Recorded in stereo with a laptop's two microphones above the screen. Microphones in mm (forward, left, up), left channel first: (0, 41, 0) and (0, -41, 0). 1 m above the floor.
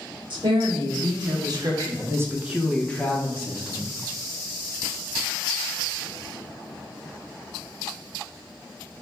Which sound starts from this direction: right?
A woman speaking, at 0.3 s.